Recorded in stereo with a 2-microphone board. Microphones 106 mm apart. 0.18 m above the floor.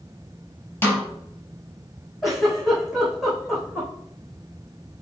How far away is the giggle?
About 5 m.